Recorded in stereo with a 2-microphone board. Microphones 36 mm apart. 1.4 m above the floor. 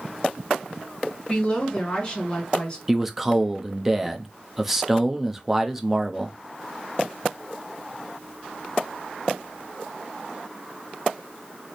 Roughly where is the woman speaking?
Left.